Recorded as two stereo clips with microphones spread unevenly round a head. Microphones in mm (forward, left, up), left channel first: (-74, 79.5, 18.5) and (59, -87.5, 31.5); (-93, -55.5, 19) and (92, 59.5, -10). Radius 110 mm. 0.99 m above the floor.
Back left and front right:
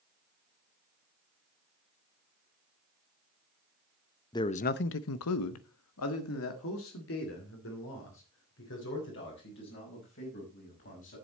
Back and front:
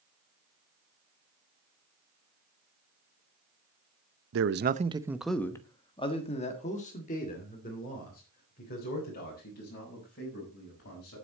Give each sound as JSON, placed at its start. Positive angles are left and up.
{"t": 4.3, "sound": "a man speaking", "azimuth_deg": 55, "distance_m": 0.7}